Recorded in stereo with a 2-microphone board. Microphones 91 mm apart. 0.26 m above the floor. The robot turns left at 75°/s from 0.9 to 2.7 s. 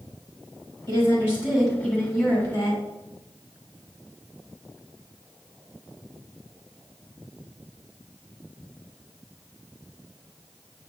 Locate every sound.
0.9 s a woman speaking: 120° right, 1.7 m; by 2.8 s 105° left, 1.7 m